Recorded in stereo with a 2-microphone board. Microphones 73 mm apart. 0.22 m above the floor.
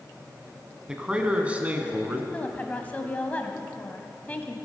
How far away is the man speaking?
About 1.4 m.